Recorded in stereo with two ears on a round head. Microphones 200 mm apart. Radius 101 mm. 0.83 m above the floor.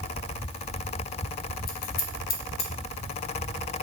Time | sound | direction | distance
1.7 | scissors | 45° left (ahead or behind) | 0.7 m